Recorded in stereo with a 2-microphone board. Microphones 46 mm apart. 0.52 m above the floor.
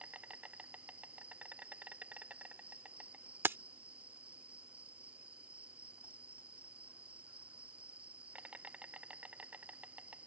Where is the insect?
30° right (ahead or behind).